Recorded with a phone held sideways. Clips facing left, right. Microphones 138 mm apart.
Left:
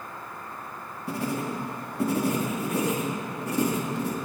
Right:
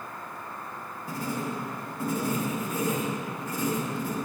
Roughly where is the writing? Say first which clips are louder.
Left 3 dB; left.